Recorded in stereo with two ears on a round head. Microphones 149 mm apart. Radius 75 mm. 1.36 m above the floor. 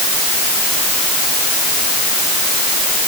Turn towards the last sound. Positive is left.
No sound to turn to.